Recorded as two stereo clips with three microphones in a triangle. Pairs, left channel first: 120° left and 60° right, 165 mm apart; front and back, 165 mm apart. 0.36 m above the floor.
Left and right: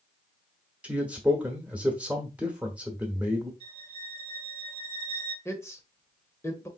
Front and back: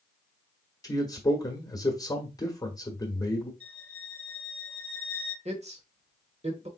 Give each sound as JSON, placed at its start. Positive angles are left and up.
{"t": 0.8, "sound": "a man speaking", "azimuth_deg": 10, "distance_m": 1.3}
{"t": 3.6, "sound": "a violin", "azimuth_deg": 180, "distance_m": 3.0}
{"t": 5.5, "sound": "a man speaking", "azimuth_deg": -175, "distance_m": 1.1}